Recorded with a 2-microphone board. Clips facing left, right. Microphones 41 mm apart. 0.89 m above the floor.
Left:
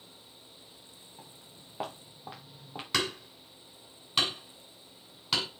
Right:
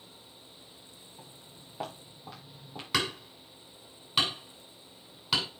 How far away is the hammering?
About 7 m.